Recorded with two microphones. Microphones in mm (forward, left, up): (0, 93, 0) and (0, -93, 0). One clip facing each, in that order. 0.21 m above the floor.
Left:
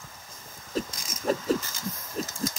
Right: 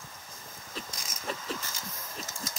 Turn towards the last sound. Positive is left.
turn(degrees=45)  # may be behind; listen again after turning